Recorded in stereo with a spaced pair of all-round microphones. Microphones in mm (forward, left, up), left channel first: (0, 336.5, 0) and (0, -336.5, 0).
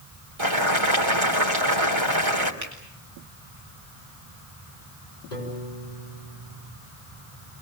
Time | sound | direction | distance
0.4 | boiling | 45° right (ahead or behind) | 3 m
2.6 | a finger snap | 25° right (ahead or behind) | 7.5 m
5.3 | a piano | 85° left | 6.5 m